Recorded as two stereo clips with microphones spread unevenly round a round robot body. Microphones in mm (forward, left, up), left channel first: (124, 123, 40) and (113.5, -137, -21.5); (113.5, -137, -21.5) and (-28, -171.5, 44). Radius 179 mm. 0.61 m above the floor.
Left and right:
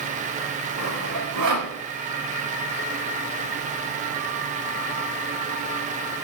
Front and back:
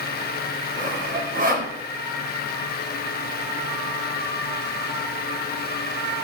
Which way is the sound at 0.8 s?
135° right.